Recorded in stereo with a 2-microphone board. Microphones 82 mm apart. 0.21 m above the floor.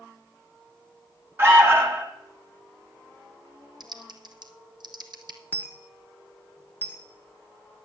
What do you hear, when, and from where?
1.4 s an alarm: 30° right (ahead or behind), 1.5 m
3.8 s typing on a keyboard: 60° right (ahead or behind), 1.2 m
5.5 s a dropped coin: 20° left (ahead or behind), 1.3 m